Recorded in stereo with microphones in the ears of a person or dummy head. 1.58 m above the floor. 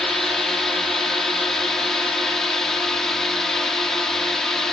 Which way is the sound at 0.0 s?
Centre (ahead or behind).